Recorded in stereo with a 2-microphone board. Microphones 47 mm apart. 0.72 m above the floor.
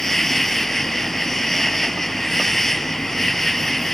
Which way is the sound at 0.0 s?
5° left (ahead or behind).